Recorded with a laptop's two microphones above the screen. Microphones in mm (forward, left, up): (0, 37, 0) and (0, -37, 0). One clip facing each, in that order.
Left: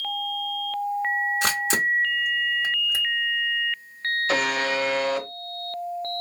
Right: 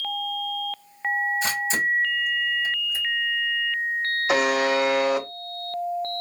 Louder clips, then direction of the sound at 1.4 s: Left 1 dB; 75° left (ahead or behind).